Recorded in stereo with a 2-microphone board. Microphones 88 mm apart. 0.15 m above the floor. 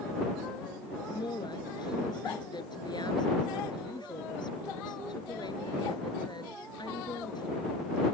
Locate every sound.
1.1 s a woman speaking: 55° left (ahead or behind)